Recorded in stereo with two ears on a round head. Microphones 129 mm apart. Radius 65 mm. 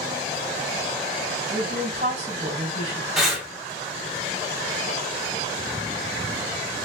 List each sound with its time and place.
1.5 s a woman speaking: 45° right (ahead or behind), 2.5 m
3.2 s breathing: centre (ahead or behind), 1.4 m